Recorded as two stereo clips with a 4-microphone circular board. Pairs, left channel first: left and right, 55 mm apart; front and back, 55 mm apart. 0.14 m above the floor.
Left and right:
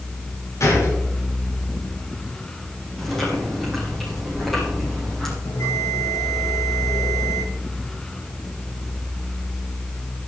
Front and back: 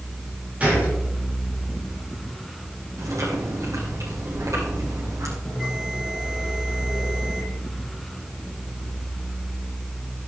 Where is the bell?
95° left, 8.5 m.